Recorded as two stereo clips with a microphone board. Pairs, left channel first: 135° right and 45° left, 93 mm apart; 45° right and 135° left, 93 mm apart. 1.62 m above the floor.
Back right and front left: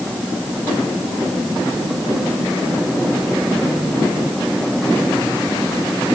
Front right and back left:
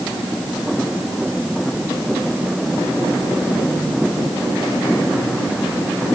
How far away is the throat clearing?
I don't hear throat clearing.